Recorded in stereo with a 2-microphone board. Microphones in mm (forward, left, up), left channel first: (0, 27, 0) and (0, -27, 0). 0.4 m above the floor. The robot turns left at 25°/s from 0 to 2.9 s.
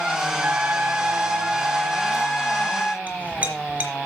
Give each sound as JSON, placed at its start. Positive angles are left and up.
{"t": 0.4, "sound": "a trumpet", "azimuth_deg": -130, "distance_m": 1.4}
{"t": 3.1, "sound": "a clink", "side_deg": -25, "distance_m": 3.5}